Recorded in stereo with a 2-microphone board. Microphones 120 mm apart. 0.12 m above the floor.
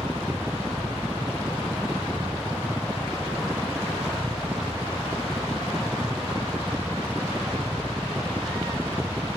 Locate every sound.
0.0 s a helicopter: 20° right (ahead or behind)